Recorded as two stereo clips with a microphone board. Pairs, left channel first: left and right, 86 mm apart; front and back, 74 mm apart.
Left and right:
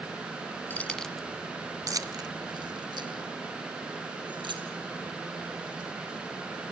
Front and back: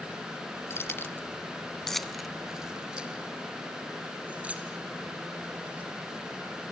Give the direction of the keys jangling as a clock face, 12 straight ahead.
11 o'clock.